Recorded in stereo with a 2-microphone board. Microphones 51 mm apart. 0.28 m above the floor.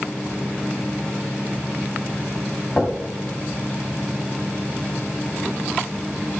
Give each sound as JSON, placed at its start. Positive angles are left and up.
{"t": 2.8, "sound": "knocking", "side_deg": 30, "distance_m": 1.4}